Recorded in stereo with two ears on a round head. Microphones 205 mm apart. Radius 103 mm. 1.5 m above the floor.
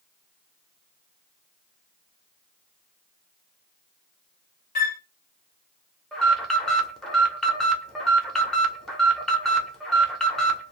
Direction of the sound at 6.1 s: Centre (ahead or behind).